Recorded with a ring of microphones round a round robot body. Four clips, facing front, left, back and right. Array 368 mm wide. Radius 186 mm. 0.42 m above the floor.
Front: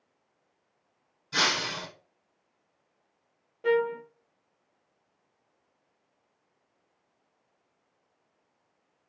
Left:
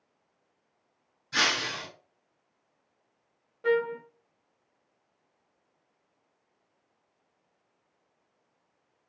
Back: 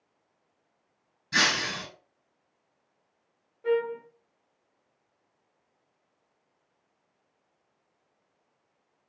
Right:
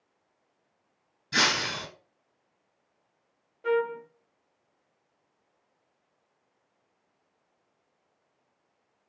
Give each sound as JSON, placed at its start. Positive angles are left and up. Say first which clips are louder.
{"t": 1.3, "sound": "breaking glass", "louder": "right 2 dB, back 1 dB", "azimuth_deg": -145, "distance_m": 3.5}
{"t": 3.6, "sound": "a trumpet", "louder": "even, front 1 dB", "azimuth_deg": 20, "distance_m": 0.6}